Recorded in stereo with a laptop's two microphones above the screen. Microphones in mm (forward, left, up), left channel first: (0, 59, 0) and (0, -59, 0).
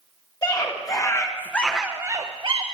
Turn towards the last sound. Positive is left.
turn(degrees=-50)  # may be behind; listen again after turning